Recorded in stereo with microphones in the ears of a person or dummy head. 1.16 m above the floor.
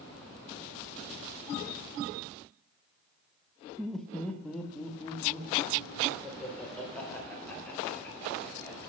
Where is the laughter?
10° left (ahead or behind), 0.9 m; by 8.9 s 20° left (ahead or behind), 5.5 m.